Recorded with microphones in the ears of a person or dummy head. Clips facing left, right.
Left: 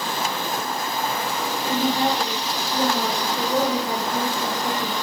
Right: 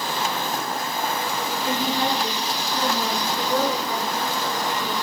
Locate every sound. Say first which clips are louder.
1.6 s a woman speaking: left 3 dB; 35° left (ahead or behind), 4.5 m; by 4.9 s 30° left (ahead or behind), 2 m